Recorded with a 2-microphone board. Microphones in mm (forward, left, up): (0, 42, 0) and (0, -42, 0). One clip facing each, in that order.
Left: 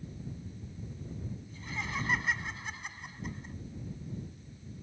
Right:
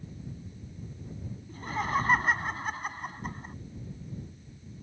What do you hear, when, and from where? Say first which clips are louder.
1.5 s laughter: right 10 dB; 45° right (ahead or behind)